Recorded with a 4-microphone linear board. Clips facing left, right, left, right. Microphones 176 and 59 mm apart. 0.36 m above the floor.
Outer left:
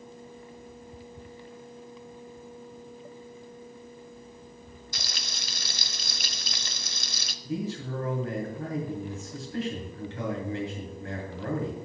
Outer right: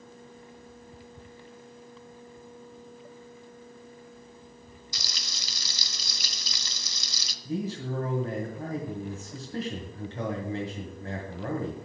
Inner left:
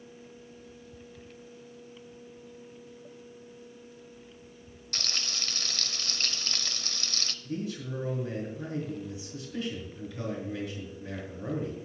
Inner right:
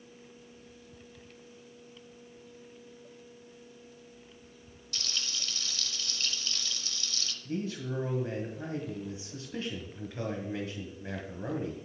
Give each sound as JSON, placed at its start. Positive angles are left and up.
{"t": 4.9, "sound": "frying", "side_deg": 55, "distance_m": 0.6}
{"t": 7.5, "sound": "a man speaking", "side_deg": -40, "distance_m": 2.0}